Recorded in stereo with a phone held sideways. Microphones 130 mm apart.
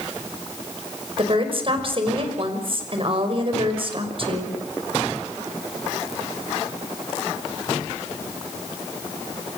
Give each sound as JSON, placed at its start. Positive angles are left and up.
{"t": 1.2, "sound": "a woman speaking", "side_deg": -45, "distance_m": 6.0}